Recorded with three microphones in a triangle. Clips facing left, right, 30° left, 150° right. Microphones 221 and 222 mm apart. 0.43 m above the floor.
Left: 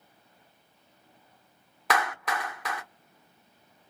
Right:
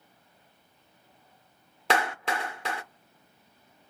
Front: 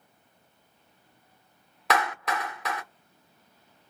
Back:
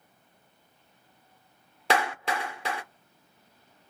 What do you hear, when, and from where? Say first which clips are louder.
1.9 s a clap: right 2 dB, back 1 dB; 120° right, 0.7 m